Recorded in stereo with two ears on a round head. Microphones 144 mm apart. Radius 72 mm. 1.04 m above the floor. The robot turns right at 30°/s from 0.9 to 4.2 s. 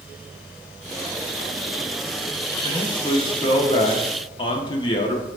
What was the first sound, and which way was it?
A man speaking, 55° left.